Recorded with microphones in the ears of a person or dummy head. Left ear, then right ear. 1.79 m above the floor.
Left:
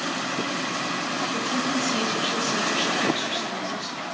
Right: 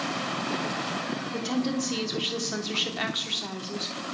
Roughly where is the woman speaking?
Centre.